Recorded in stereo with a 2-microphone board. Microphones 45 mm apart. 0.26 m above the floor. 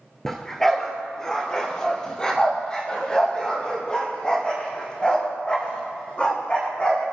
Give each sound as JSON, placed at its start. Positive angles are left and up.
{"t": 0.2, "sound": "a dog barking", "side_deg": 5, "distance_m": 1.9}